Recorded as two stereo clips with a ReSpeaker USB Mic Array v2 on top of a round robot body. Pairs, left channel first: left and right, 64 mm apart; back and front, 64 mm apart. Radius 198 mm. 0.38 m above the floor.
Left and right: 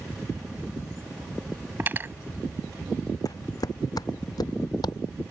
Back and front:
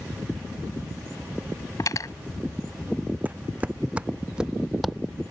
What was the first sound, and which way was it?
Cutlery clinking, 150° right.